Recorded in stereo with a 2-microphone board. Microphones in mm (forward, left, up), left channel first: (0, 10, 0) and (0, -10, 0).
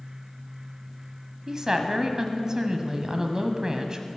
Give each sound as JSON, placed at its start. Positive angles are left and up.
{"t": 1.5, "sound": "a woman speaking", "side_deg": -30, "distance_m": 1.2}